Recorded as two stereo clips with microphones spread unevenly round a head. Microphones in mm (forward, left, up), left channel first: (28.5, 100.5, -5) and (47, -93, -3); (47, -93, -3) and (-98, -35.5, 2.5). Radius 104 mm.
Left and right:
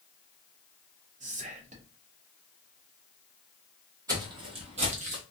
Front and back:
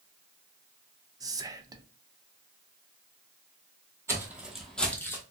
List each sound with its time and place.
1.2 s whispering: 135° right, 0.5 m
4.1 s footsteps: 145° right, 1.1 m; by 5.2 s 85° right, 1.2 m